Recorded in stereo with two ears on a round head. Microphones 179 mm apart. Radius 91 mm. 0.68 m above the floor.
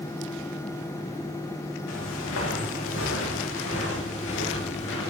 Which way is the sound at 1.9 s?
80° left.